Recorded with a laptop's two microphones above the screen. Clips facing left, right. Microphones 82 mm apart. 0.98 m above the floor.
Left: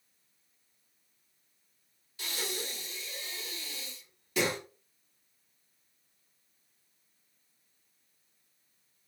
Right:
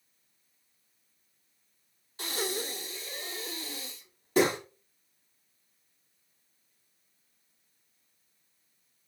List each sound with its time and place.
2.2 s breathing: 40° right (ahead or behind), 2.5 m